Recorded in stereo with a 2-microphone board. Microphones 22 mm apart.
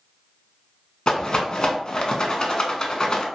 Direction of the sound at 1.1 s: 35° left (ahead or behind).